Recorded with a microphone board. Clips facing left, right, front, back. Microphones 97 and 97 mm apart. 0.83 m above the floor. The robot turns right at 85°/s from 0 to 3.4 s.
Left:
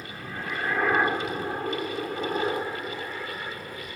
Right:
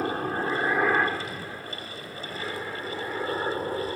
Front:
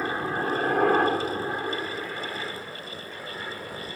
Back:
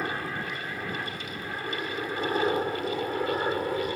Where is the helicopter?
80° right; by 4.0 s 140° right.